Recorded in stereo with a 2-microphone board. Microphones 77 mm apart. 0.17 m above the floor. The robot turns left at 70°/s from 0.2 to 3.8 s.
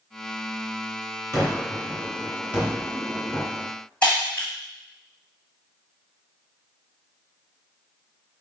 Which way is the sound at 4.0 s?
15° left (ahead or behind).